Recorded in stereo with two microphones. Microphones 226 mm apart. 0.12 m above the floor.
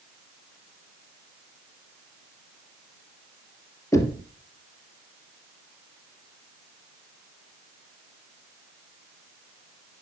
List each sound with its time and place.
3.9 s knocking: 10° left (ahead or behind), 2.5 m